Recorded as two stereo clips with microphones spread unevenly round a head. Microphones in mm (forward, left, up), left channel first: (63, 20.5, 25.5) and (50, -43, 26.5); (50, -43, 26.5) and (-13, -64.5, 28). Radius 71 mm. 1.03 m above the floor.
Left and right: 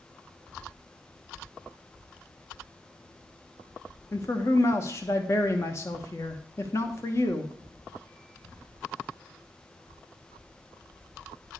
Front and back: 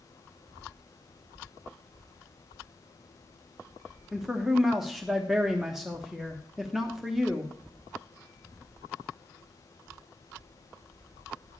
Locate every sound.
4.1 s a man speaking: 115° left, 1.0 m